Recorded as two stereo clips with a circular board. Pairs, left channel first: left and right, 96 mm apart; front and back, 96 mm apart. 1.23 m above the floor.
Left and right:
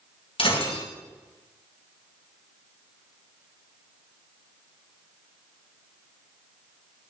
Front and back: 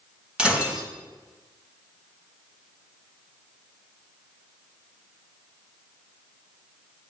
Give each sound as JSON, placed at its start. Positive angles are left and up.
{"t": 0.4, "sound": "breaking glass", "azimuth_deg": 100, "distance_m": 3.0}